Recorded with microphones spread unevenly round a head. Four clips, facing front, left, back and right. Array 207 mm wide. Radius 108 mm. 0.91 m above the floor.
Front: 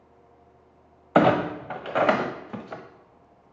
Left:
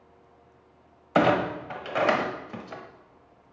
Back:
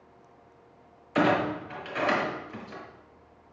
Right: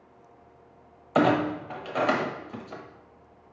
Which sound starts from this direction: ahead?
A clunk, at 1.1 s.